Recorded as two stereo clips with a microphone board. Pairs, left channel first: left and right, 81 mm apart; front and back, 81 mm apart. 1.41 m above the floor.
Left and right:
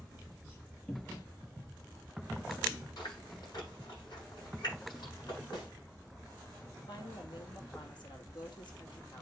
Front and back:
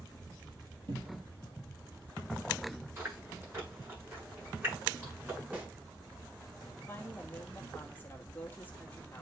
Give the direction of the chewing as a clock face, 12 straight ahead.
8 o'clock.